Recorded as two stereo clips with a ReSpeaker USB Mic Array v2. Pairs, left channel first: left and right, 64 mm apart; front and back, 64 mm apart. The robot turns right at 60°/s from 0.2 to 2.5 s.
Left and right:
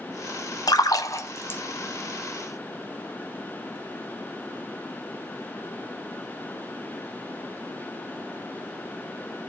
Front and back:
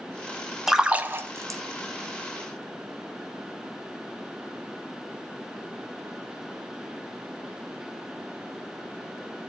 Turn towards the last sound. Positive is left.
turn(degrees=-155)